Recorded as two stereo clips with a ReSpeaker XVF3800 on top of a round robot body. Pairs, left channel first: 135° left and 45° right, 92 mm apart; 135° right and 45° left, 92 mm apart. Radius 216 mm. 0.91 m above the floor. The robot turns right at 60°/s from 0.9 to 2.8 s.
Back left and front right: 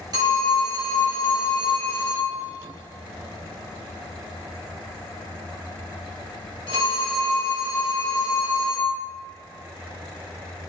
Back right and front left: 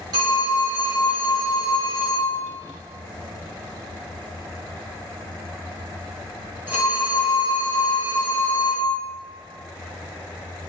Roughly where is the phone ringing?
Ahead.